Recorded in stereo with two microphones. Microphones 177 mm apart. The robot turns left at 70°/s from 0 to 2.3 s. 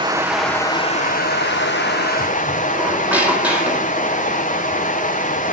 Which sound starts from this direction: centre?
A squeak, at 2.7 s.